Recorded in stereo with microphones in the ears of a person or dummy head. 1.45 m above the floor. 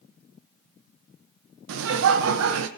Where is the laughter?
75° right (ahead or behind), 0.9 m.